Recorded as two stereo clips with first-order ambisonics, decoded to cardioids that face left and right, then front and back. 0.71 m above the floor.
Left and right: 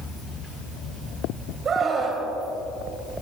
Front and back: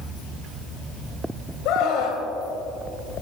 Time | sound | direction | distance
1.6 | a scream | 30° right | 3 m